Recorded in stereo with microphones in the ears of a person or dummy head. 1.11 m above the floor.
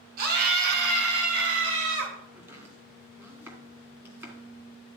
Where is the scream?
50° right (ahead or behind), 2.5 m; by 2.2 s 75° right (ahead or behind), 4.5 m.